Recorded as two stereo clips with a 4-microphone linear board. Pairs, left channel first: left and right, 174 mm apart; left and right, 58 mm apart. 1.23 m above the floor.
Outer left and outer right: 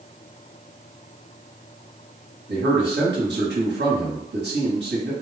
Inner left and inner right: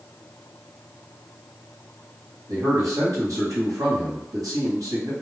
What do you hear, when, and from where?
2.5 s a man speaking: 85° right, 1.2 m